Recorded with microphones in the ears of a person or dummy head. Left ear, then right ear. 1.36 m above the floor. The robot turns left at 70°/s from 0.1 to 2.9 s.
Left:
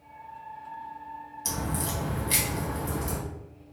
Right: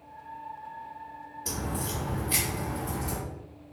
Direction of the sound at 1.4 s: 70° left (ahead or behind).